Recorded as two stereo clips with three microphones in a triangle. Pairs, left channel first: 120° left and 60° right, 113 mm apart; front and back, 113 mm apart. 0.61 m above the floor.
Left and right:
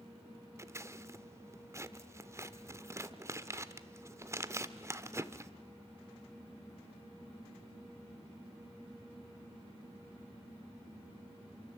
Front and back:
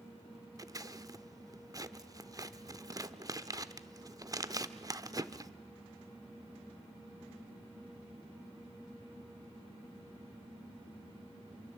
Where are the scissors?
120° right, 0.9 m.